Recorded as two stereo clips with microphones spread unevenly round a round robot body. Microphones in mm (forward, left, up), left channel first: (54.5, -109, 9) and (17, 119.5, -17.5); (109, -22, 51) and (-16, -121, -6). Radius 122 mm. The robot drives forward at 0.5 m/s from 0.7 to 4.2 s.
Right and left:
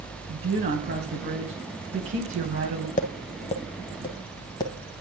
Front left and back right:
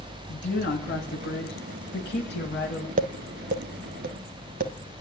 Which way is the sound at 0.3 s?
65° left.